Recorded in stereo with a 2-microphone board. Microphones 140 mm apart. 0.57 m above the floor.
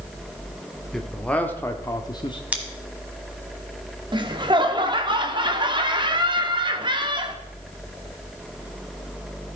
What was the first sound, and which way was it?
A man speaking, 5° left (ahead or behind).